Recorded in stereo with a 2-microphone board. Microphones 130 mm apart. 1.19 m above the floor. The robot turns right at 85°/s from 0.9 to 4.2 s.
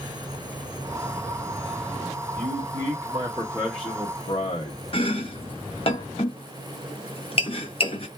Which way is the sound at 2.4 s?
110° right.